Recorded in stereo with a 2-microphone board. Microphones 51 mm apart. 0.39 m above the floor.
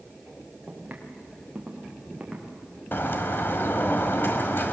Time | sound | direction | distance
0.7 | footsteps | 30° right (ahead or behind) | 4.5 m
2.9 | a bird | 50° left (ahead or behind) | 1.8 m